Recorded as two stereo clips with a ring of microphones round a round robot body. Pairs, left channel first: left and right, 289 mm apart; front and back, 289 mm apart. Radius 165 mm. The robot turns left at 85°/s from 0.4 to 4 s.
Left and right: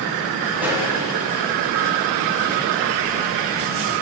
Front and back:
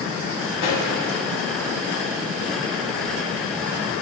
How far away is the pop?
About 3.5 m.